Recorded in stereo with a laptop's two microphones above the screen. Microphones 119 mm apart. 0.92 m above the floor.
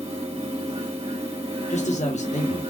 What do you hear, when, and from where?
0.0 s a fan: 60° right (ahead or behind), 2 m
1.7 s a man speaking: 80° left, 1.3 m